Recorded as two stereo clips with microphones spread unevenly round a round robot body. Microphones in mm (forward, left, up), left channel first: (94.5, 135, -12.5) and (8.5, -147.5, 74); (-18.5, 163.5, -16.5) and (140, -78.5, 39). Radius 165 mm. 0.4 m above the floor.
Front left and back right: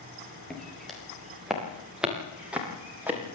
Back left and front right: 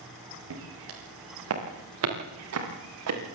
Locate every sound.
0.5 s footsteps: 15° right, 7.5 m; by 3.2 s 25° right, 8.5 m